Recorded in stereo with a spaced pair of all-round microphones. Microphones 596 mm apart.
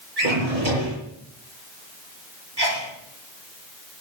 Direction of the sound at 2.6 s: 40° right (ahead or behind).